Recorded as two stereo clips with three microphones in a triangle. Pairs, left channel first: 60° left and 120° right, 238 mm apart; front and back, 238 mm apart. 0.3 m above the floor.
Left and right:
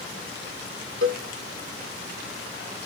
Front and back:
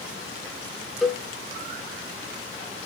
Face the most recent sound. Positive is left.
turn(degrees=-90)